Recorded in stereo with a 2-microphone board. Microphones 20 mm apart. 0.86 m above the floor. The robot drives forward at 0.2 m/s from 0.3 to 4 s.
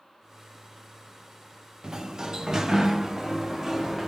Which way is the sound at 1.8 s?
35° right (ahead or behind).